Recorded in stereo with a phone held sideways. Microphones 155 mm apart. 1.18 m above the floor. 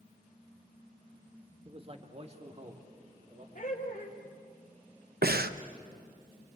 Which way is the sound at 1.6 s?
35° right (ahead or behind).